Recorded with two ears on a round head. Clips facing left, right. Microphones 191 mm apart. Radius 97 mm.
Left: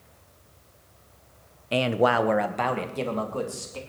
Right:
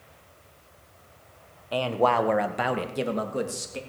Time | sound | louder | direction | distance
1.7 | a man speaking | left 2 dB | 30° left (ahead or behind) | 0.9 m